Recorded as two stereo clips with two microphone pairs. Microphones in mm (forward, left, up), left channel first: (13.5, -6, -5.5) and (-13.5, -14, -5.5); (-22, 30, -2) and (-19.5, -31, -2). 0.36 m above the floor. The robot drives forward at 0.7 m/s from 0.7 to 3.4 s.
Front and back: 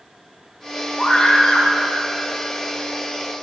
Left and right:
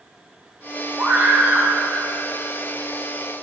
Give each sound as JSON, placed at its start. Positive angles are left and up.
{"t": 1.0, "sound": "a scream", "azimuth_deg": -50, "distance_m": 3.0}